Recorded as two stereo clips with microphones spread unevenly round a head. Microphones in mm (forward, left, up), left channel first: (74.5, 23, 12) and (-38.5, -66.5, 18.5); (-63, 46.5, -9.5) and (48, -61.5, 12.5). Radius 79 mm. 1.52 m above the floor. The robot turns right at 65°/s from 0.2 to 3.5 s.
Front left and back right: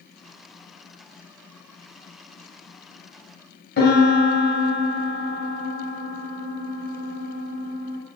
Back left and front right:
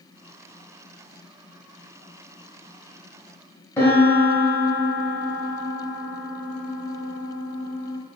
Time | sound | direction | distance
3.8 | a piano | 60° left | 1.0 m